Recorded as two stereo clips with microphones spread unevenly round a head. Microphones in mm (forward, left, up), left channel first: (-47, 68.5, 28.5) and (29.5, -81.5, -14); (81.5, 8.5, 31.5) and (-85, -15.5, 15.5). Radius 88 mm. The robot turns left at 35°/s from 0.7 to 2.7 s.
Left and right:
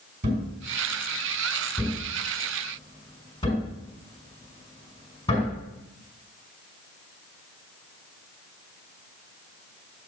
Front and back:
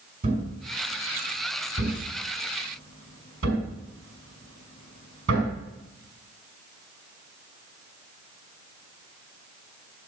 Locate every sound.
0.2 s a thud: 110° right, 5 m; by 5.5 s straight behind, 5 m